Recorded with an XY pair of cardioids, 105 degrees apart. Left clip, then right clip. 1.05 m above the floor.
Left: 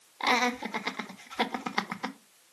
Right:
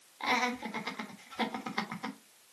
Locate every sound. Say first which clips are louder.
0.2 s laughter: left 4 dB; 40° left, 1.4 m